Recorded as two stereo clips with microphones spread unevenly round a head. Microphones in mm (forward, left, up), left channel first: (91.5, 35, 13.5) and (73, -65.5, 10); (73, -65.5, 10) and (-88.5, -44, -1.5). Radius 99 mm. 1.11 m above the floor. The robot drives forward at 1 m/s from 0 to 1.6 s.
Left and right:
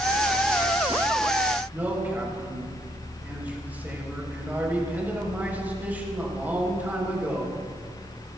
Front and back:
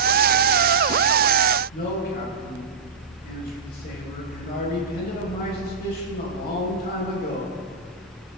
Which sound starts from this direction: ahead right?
A man speaking, at 1.7 s.